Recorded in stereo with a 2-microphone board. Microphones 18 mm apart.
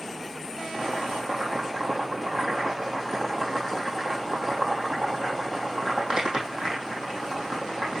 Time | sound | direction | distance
0.7 | boiling | 45° right (ahead or behind) | 4 m